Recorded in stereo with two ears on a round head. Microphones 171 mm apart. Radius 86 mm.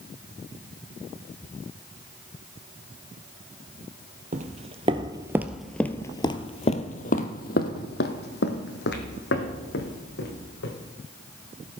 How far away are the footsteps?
About 1.0 m.